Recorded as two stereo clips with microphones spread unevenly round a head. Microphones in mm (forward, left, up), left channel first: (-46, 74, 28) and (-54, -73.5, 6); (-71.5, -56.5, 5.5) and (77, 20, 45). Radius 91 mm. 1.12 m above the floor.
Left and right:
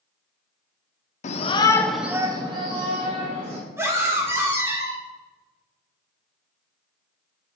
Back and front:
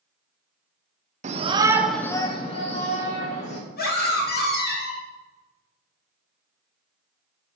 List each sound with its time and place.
1.2 s a shout: 70° left, 0.6 m; by 3.6 s 125° right, 1.4 m
3.8 s a scream: 160° right, 2.0 m